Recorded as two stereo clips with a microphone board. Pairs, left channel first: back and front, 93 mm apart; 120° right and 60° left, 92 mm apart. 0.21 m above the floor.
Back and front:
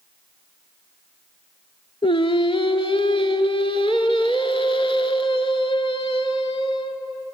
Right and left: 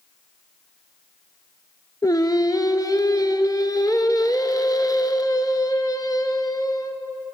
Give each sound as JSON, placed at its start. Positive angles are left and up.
{"t": 2.0, "sound": "singing", "azimuth_deg": -165, "distance_m": 0.8}